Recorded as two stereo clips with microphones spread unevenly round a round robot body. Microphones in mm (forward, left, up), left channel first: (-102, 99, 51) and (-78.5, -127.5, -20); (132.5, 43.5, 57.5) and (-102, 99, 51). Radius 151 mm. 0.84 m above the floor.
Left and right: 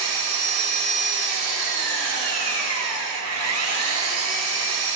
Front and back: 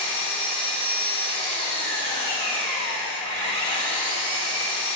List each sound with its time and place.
0.0 s an engine running: 75° right, 3 m